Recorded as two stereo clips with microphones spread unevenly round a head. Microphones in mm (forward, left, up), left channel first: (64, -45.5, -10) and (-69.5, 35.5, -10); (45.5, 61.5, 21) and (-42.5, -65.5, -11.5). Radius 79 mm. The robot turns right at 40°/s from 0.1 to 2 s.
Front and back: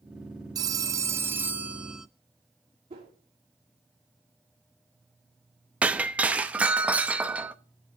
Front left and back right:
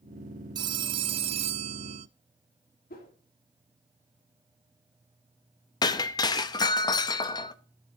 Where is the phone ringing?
175° left, 0.5 m; by 2.1 s 125° right, 0.5 m.